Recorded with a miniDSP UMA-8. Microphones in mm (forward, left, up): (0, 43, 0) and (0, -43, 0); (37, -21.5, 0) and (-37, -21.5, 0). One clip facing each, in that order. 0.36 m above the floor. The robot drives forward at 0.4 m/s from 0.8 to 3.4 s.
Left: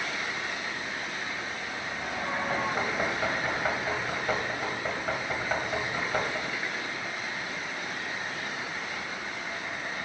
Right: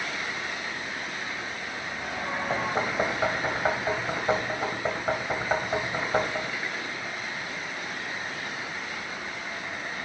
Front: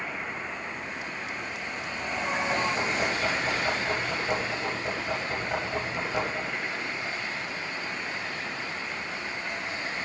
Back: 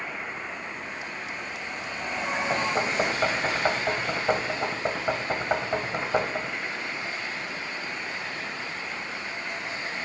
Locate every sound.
2.5 s knocking: 145° right, 1.7 m; by 6.5 s 150° right, 1.9 m